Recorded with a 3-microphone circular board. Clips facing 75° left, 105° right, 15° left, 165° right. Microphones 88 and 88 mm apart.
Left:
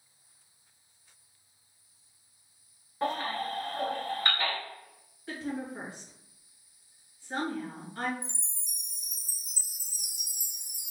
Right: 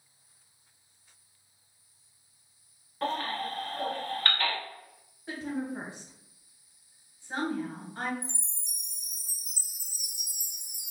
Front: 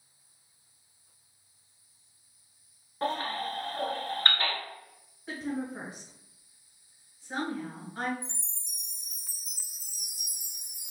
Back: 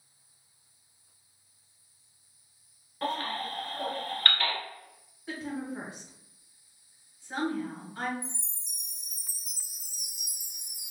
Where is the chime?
75° right, 0.8 m.